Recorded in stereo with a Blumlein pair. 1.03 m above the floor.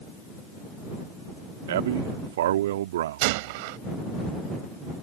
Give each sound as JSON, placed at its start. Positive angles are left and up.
{"t": 1.7, "sound": "a man speaking", "azimuth_deg": -55}
{"t": 3.2, "sound": "a gunshot", "azimuth_deg": -50}